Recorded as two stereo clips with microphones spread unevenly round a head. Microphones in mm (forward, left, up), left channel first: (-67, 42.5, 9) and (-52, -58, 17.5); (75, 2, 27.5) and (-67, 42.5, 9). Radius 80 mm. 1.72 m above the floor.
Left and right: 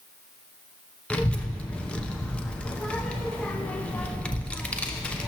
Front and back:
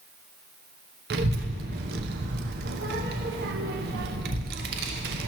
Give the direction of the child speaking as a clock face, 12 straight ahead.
6 o'clock.